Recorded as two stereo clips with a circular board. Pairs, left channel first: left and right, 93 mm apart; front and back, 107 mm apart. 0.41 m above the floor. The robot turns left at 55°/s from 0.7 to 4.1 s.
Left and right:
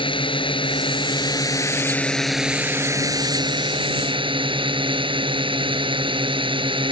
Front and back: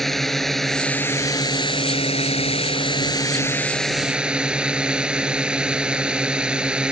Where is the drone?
90° left; by 6.9 s 100° right.